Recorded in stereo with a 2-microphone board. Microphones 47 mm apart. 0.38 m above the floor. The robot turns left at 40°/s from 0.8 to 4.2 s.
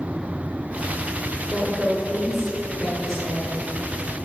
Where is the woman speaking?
135° right, 1.5 m; by 3.5 s 145° left, 1.5 m.